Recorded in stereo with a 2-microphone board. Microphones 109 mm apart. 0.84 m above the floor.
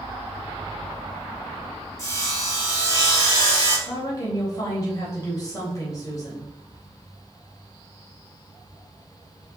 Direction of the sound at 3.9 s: 30° left (ahead or behind).